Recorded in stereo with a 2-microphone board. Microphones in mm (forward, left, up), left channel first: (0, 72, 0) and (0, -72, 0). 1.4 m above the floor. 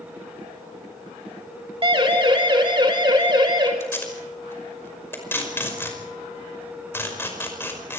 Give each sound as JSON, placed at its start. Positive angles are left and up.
{"t": 1.8, "sound": "a siren", "side_deg": -35, "distance_m": 2.5}
{"t": 3.8, "sound": "tape being pulled", "side_deg": 15, "distance_m": 5.5}